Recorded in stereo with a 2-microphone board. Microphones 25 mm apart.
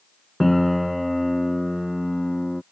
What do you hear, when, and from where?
0.4 s a piano: 5° left (ahead or behind)